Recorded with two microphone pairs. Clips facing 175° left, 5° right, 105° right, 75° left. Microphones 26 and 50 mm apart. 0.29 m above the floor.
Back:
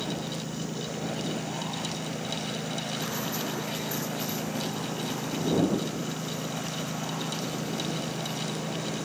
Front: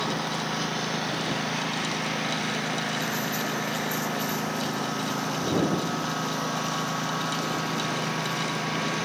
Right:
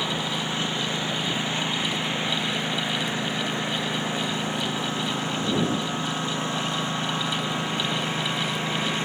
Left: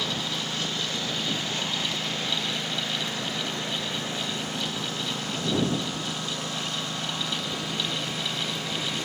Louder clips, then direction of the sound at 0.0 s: Front 5 dB, right 3 dB; 35° right.